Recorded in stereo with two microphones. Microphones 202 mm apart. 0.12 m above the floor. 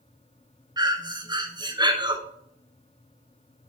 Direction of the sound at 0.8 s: 20° right (ahead or behind).